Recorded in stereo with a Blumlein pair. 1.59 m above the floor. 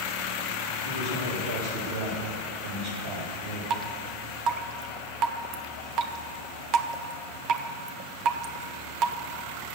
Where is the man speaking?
65° right, 3.5 m.